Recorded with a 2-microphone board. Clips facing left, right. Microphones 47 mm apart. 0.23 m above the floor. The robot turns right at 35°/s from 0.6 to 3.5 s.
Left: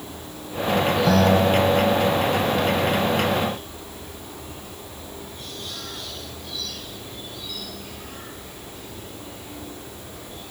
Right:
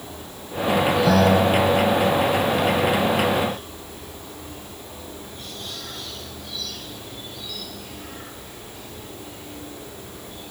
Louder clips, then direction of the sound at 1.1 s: Even; 10° right (ahead or behind).